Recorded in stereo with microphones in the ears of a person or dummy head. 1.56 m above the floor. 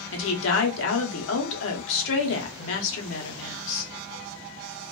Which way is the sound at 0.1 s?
80° left.